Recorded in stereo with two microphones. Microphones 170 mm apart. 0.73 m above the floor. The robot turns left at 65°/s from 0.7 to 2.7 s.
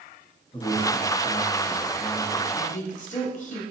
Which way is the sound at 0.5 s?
125° left.